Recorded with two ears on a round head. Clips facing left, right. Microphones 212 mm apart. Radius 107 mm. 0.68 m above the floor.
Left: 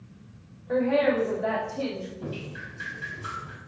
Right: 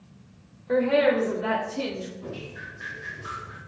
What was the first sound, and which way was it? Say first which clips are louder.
A woman speaking: right 2 dB; 40° right (ahead or behind).